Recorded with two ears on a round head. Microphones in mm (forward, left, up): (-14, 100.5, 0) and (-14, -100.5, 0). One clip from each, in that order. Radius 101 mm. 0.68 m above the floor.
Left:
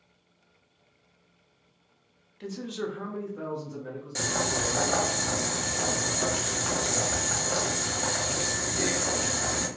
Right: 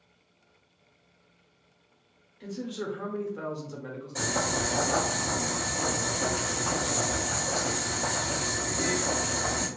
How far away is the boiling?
About 1.1 m.